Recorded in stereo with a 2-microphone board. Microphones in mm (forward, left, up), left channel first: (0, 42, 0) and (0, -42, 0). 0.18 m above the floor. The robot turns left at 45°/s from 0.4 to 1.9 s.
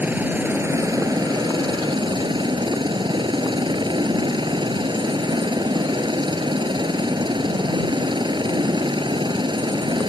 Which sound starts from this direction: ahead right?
A helicopter, at 0.0 s.